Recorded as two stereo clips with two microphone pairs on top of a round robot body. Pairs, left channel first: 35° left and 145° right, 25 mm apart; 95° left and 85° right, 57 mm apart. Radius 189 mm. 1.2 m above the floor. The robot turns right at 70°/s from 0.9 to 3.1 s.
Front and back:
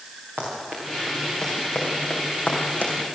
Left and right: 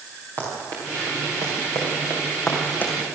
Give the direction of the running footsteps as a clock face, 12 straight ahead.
4 o'clock.